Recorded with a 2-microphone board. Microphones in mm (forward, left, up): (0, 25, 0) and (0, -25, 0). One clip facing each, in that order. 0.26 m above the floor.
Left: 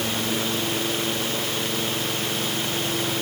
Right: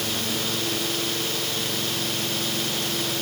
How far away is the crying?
No crying in this recording.